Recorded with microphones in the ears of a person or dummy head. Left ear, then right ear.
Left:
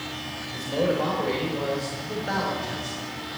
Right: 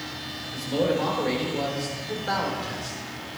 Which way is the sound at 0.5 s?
20° right (ahead or behind).